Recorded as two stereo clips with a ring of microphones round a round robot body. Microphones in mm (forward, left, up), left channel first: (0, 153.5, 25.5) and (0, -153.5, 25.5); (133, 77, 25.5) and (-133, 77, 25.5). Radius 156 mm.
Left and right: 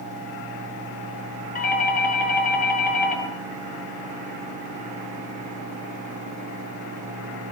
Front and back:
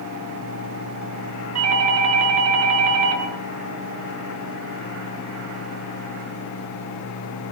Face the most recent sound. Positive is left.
turn(degrees=155)